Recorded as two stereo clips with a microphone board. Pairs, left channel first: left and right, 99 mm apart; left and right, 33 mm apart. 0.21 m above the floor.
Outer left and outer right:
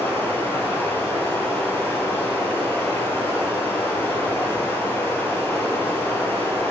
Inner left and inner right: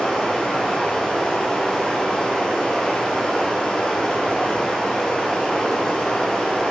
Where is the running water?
20° left (ahead or behind), 2.5 m.